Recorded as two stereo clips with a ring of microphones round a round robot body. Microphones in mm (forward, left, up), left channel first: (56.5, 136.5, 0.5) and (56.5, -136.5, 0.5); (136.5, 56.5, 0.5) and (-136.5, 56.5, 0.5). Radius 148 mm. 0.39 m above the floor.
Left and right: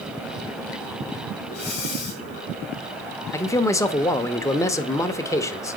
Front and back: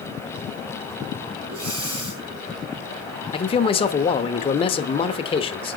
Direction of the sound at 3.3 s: 30° left.